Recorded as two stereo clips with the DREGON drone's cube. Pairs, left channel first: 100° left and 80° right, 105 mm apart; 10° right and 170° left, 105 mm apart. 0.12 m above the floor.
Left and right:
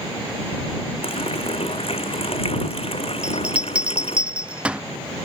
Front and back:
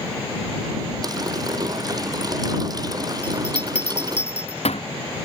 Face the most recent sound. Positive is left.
turn(degrees=0)